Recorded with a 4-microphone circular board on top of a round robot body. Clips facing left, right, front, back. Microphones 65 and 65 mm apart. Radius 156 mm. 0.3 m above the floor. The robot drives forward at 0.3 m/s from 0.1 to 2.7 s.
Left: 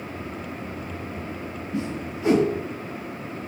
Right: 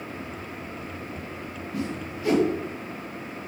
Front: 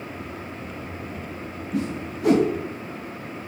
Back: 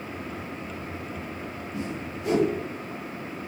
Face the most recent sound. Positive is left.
turn(degrees=25)